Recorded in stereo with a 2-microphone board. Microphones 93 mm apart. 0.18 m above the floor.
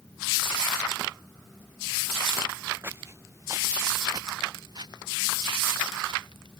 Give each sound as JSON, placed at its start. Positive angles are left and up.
{"t": 2.8, "sound": "footsteps", "side_deg": -25}